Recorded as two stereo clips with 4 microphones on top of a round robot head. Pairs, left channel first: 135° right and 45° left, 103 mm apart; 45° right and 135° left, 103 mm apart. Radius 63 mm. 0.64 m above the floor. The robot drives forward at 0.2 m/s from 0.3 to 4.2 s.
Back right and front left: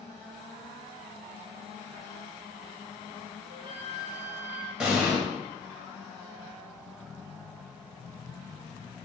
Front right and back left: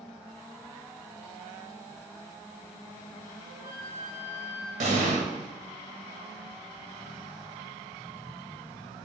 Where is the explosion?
130° left, 1.1 m.